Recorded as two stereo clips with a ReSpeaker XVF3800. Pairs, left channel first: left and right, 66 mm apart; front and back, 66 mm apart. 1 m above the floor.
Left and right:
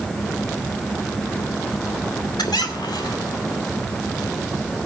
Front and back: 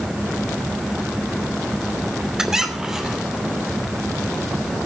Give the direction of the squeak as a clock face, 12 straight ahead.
9 o'clock.